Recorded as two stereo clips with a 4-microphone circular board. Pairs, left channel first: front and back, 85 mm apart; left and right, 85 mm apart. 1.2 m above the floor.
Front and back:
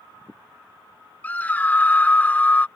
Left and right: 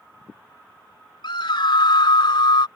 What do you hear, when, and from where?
1.2 s a scream: 70° left